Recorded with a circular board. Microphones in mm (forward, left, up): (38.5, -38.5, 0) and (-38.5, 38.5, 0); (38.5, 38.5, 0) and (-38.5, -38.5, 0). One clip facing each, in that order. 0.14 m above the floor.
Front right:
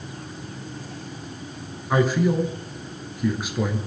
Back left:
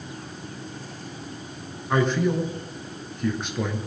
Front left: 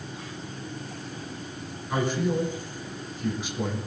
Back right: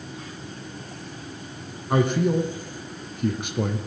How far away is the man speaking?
About 2.5 m.